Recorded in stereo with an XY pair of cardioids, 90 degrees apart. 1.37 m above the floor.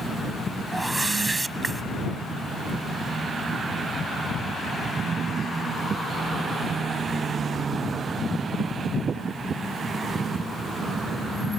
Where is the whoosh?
20° right.